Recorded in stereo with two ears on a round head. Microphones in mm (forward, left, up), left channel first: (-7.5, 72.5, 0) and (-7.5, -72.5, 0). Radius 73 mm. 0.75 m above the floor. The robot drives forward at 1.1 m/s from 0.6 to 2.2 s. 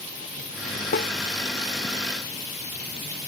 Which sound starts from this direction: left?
A snare drum, at 0.9 s.